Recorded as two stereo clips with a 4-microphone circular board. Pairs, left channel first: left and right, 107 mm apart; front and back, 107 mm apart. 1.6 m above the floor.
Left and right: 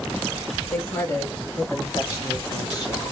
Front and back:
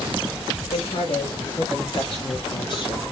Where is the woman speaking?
20° left, 5 m; by 3.0 s 40° left, 4 m.